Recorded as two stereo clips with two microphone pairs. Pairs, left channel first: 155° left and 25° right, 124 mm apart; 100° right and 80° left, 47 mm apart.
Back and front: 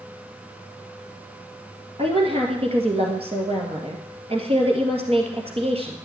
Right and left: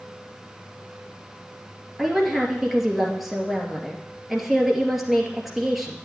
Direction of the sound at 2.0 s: 5° right.